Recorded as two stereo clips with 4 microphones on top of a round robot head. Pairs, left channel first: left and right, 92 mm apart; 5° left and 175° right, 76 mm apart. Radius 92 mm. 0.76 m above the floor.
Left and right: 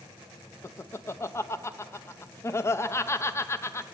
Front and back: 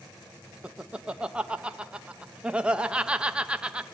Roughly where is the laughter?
Behind left.